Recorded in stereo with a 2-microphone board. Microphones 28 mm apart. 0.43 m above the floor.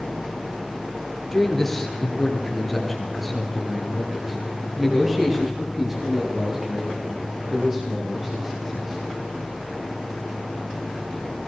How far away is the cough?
I don't hear a cough.